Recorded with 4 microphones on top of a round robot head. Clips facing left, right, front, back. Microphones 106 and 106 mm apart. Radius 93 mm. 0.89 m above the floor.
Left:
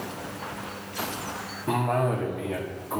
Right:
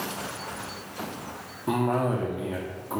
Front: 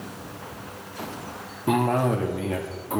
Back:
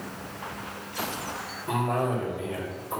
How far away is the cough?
About 1.6 m.